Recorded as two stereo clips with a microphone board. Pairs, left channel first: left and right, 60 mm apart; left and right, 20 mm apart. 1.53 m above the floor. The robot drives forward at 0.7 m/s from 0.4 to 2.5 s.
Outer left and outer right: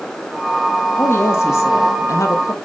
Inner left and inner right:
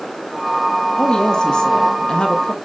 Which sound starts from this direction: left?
A woman speaking, at 1.0 s.